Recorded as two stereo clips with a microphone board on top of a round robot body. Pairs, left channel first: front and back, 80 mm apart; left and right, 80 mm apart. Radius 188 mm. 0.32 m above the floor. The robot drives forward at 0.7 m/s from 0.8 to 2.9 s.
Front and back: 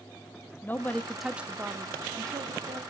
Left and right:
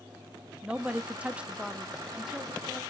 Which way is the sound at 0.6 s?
30° right.